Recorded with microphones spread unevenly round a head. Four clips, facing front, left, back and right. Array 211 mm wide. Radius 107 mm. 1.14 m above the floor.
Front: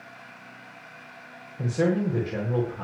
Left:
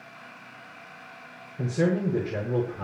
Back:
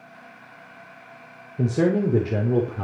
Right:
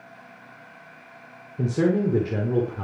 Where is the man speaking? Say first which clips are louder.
Right 3 dB, back 4 dB; 145° right, 4 m.